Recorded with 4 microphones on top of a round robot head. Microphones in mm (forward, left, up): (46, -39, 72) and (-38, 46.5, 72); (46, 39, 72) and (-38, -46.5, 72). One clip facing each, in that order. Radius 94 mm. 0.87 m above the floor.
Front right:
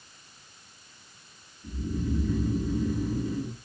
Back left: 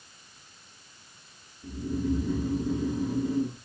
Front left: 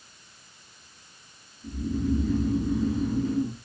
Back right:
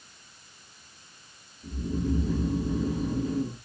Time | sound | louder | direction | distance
1.6 | snoring | back left 3 dB, front left 2 dB | 170° left | 1.5 m